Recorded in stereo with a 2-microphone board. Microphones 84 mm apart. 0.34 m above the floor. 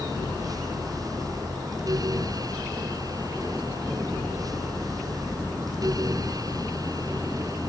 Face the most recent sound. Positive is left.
No sound to turn to.